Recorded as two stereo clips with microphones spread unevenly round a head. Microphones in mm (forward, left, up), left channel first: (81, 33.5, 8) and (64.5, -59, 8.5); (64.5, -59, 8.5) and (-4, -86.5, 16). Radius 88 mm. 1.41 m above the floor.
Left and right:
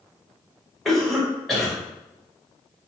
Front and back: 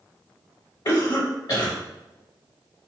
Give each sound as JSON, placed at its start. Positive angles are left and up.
{"t": 0.8, "sound": "a cough", "azimuth_deg": -5, "distance_m": 1.9}